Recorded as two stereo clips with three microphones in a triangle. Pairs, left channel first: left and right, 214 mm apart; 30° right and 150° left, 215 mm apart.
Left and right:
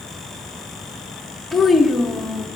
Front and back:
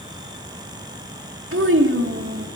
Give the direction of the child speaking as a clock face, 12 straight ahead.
6 o'clock.